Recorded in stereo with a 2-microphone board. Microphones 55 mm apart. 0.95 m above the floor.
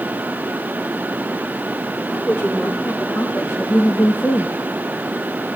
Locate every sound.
2.1 s a woman speaking: 45° left (ahead or behind), 3 m